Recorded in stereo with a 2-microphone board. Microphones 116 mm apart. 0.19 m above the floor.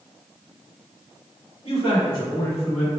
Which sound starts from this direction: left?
A man speaking, at 1.6 s.